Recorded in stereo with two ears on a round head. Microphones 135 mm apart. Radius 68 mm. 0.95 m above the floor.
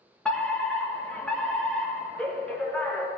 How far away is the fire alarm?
About 1.7 m.